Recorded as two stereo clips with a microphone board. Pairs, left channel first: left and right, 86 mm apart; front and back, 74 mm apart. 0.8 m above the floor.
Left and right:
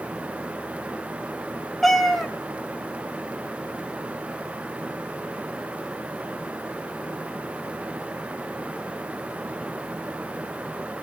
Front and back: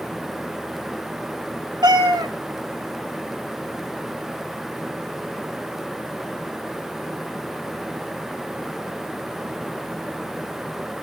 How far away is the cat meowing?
About 1.9 m.